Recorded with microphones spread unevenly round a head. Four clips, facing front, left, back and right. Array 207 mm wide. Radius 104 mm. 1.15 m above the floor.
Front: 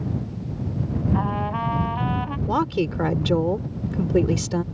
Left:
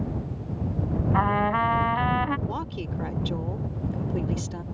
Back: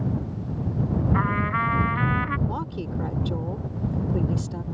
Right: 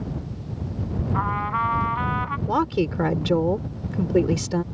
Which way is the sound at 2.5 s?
45° right.